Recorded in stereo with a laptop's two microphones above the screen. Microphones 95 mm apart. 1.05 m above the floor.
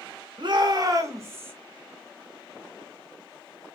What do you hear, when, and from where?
0.4 s a shout: 55° right (ahead or behind), 1.0 m; by 1.5 s 20° right (ahead or behind), 1.2 m